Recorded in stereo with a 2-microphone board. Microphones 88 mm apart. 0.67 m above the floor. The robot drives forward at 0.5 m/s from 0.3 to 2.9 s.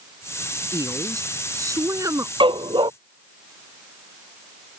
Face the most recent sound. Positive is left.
turn(degrees=-70)  # may be behind; listen again after turning